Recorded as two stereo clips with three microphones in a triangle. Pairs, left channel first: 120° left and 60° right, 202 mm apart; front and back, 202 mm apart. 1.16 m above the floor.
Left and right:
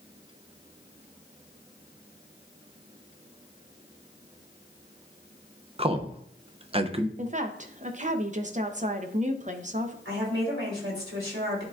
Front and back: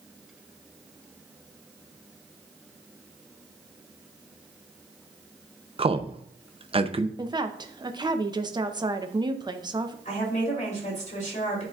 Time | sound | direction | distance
5.8 | a man speaking | 115° right | 0.6 m
7.2 | a woman speaking | 110° right | 0.7 m
10.1 | a woman speaking | 50° right | 3 m